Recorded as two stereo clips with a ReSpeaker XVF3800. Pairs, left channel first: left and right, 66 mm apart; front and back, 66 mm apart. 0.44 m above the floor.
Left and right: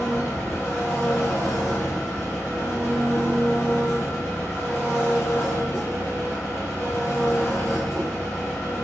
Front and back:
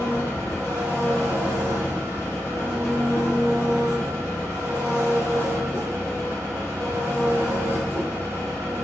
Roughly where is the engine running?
Behind left.